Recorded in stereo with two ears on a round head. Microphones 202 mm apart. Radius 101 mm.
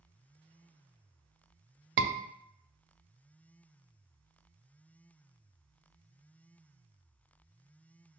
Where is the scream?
50° right (ahead or behind), 0.5 m.